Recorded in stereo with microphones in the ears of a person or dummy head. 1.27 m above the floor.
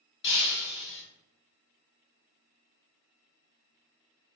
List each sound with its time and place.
0.2 s breaking glass: 65° left (ahead or behind), 1.3 m